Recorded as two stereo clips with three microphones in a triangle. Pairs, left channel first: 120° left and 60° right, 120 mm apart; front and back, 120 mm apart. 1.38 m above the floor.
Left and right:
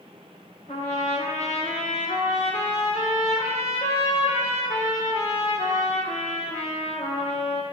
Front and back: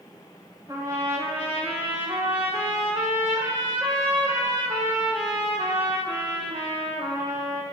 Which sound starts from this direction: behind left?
A trumpet, at 0.7 s.